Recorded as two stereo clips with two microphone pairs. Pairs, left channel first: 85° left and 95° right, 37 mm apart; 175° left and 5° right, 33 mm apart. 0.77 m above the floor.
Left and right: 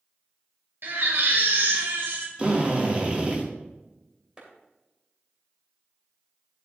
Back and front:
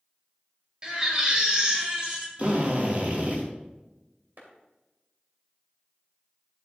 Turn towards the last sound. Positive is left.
turn(degrees=-30)